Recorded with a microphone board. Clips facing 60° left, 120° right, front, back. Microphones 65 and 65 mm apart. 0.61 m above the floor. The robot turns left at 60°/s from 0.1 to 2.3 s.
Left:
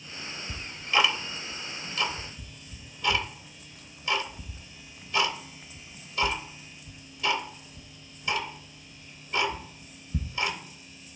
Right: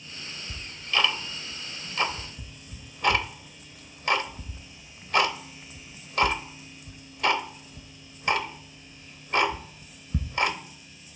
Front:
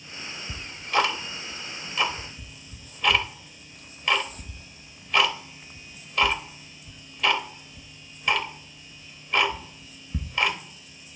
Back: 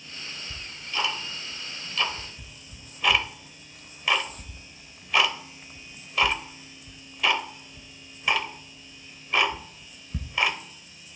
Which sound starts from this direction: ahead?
Ticking, at 0.5 s.